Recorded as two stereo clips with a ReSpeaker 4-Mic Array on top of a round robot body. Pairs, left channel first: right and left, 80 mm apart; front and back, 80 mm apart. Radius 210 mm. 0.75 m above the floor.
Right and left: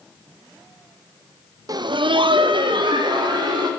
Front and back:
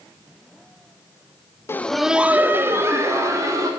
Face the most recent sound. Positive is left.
turn(degrees=125)